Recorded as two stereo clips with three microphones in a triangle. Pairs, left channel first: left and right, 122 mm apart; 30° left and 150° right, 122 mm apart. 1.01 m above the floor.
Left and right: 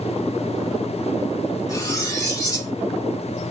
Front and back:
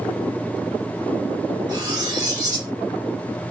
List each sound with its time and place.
1.7 s cutlery clinking: 150° left, 1.2 m